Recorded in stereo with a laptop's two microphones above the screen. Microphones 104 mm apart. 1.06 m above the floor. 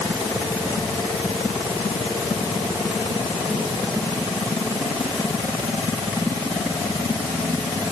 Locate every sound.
Only background noise.